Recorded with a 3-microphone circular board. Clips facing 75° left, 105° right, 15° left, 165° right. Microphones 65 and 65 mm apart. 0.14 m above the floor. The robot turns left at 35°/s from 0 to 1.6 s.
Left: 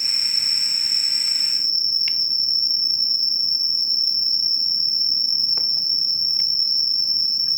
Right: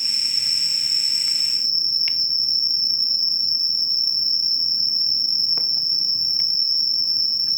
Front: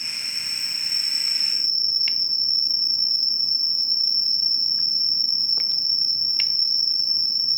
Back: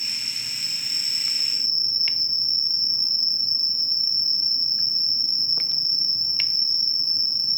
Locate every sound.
0.0 s an insect: 110° left, 0.9 m; by 7.6 s 55° left, 0.9 m